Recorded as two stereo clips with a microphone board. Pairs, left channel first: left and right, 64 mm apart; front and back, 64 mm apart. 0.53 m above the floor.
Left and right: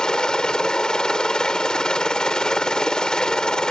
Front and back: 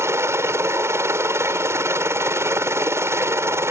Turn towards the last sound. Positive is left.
turn(degrees=165)